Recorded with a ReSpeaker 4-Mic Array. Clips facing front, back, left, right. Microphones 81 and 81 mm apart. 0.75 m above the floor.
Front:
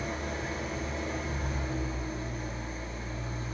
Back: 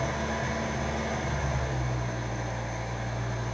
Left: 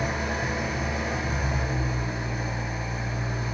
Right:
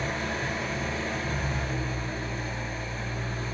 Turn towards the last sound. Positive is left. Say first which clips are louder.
# back 5 dB, left 2 dB
turn(degrees=165)